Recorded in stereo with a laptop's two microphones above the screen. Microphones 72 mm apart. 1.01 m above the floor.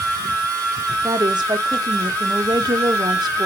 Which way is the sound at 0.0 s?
20° left (ahead or behind).